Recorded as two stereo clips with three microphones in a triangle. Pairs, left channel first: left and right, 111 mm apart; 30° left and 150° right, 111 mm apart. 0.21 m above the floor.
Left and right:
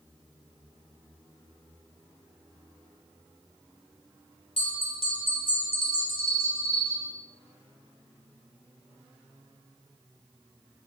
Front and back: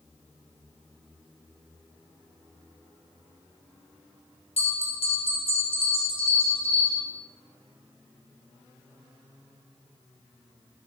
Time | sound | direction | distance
4.6 | a bell | 60° left | 1.2 m